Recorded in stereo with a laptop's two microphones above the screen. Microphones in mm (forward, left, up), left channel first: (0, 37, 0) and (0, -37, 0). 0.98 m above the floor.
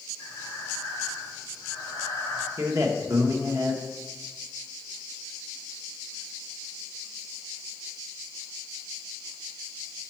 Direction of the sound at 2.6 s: 45° right (ahead or behind).